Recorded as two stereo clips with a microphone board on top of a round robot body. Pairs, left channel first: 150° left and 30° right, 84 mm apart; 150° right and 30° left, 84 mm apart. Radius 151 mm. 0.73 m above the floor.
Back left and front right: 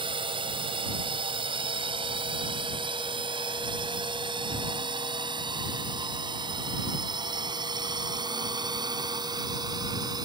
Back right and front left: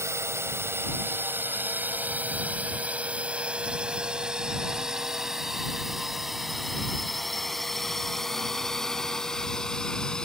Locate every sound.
0.0 s a drone: 30° right; by 10.3 s 70° right